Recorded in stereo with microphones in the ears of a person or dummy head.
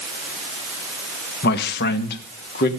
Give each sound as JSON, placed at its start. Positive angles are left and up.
{"t": 1.4, "sound": "a man speaking", "side_deg": 60, "distance_m": 2.0}